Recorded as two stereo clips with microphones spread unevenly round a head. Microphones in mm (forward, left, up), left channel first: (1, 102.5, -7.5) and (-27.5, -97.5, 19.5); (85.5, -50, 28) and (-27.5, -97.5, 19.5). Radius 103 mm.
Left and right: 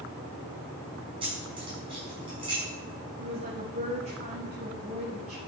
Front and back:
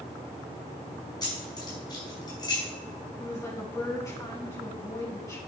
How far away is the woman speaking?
About 7.5 m.